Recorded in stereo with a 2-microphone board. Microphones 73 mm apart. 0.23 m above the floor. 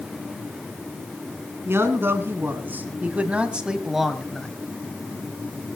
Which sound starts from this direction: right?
A man speaking, at 1.6 s.